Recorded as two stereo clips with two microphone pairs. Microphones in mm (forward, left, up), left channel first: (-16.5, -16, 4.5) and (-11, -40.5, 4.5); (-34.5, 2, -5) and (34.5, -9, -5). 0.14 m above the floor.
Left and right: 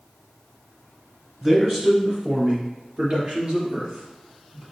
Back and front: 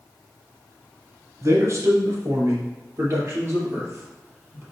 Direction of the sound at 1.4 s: 20° right.